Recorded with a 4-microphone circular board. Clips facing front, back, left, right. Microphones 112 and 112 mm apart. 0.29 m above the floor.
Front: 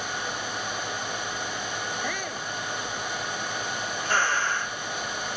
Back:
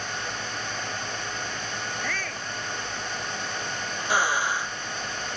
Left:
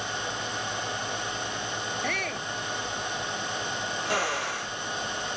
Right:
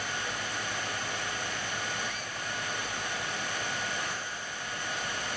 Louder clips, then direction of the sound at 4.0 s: Back 1 dB, left 10 dB; 100° left.